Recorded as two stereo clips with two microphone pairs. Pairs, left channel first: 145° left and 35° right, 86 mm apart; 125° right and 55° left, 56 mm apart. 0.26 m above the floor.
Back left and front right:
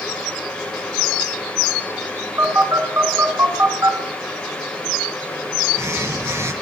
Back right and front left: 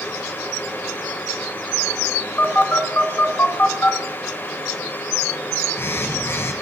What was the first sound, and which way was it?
A phone buzzing, 85° right.